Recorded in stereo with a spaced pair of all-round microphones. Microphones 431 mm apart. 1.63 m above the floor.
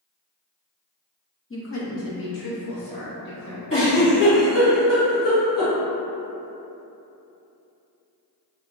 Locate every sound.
1.5 s a woman speaking: 30° left (ahead or behind), 0.6 m; by 3.6 s 55° left (ahead or behind), 1.3 m
3.7 s a giggle: 50° left (ahead or behind), 1.3 m